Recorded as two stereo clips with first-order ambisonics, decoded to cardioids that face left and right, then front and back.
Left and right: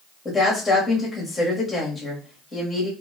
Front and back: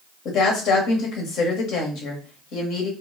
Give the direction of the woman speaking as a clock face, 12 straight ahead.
12 o'clock.